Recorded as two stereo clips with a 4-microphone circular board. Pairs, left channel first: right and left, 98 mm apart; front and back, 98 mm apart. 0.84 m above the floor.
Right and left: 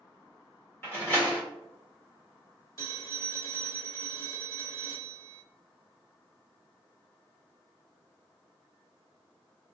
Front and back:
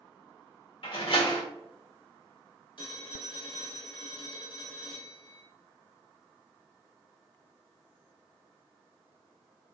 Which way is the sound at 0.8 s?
25° right.